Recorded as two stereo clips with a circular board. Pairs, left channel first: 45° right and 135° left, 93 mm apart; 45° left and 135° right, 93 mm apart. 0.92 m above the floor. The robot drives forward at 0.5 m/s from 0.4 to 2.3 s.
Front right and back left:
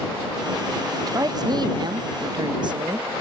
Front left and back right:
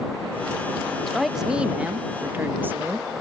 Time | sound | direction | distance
1.1 | a woman speaking | 130° left | 0.8 m